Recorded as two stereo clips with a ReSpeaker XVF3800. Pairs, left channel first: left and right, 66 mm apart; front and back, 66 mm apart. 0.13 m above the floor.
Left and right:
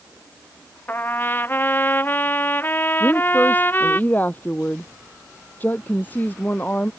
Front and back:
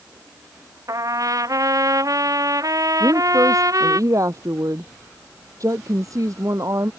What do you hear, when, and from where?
0.9 s a trumpet: 150° left
3.0 s a woman speaking: 150° left